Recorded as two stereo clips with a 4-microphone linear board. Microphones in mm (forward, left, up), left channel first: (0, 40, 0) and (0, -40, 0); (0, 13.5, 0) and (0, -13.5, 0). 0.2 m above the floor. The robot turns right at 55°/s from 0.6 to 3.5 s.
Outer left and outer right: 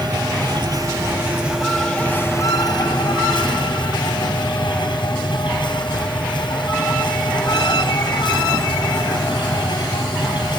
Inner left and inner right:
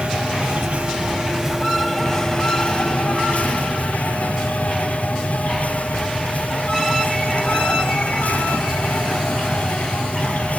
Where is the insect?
65° right, 2.5 m; by 10.6 s 95° left, 2.5 m.